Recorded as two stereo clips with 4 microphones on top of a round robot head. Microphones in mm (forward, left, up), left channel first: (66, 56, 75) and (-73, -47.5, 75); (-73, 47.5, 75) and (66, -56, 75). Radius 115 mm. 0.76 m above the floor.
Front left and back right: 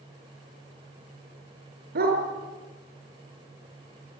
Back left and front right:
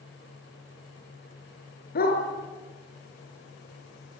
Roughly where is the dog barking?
Behind.